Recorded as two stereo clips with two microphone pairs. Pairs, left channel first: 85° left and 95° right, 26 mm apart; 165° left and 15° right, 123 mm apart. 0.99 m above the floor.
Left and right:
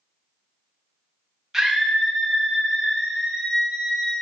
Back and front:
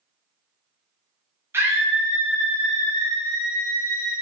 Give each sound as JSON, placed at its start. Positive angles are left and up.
{"t": 1.5, "sound": "a scream", "azimuth_deg": -35, "distance_m": 0.5}